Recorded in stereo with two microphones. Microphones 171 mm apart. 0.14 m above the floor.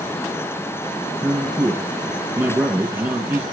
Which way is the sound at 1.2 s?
10° right (ahead or behind).